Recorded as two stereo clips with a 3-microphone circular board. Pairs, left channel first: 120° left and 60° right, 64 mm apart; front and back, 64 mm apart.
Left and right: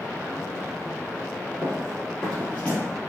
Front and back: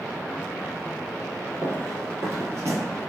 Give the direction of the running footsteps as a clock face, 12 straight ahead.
5 o'clock.